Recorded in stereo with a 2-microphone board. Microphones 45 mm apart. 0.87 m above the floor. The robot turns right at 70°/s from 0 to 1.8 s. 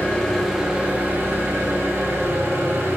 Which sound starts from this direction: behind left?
An engine running, at 0.0 s.